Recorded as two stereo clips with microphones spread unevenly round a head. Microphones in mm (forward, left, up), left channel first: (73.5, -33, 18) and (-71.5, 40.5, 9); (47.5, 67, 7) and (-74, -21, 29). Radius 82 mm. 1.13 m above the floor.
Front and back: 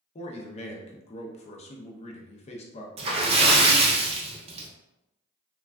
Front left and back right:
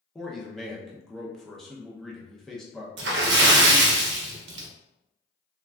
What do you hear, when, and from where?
0.1 s a man speaking: 35° right, 0.6 m
3.0 s a splash: 150° right, 0.7 m